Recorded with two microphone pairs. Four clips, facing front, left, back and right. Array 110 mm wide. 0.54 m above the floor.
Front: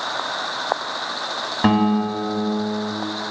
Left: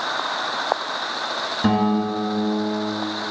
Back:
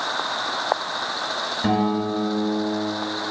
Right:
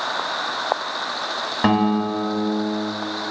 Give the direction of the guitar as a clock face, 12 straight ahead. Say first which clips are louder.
Right 1 dB, front 4 dB; 2 o'clock.